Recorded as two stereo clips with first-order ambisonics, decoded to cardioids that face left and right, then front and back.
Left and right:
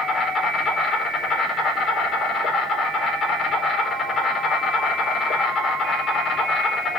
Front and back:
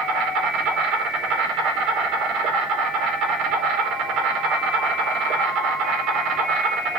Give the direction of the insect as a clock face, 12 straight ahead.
7 o'clock.